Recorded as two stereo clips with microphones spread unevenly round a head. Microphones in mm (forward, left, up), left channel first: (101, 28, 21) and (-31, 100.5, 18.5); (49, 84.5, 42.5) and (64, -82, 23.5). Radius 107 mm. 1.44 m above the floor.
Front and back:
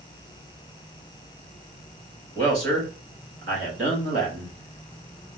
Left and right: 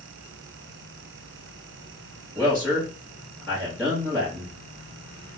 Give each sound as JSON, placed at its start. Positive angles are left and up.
{"t": 2.4, "sound": "a man speaking", "azimuth_deg": 180, "distance_m": 2.5}